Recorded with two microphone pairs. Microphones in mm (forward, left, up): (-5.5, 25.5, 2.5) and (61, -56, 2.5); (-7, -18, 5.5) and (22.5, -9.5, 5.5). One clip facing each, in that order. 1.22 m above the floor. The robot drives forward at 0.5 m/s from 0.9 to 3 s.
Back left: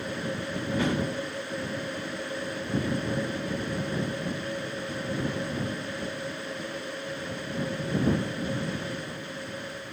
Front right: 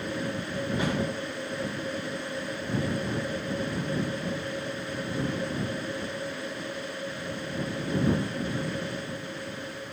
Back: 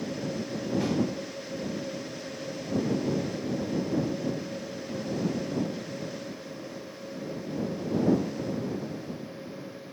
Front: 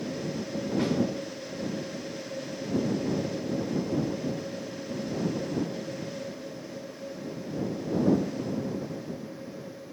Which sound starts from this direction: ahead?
A snare drum, at 0.8 s.